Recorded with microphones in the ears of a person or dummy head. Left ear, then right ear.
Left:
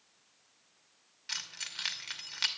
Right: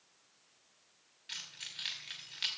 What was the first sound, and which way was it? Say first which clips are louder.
Keys jangling: left 5 dB; 40° left (ahead or behind).